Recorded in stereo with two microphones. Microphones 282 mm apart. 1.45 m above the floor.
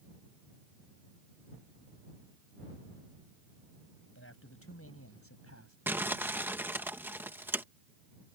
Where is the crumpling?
10° right (ahead or behind).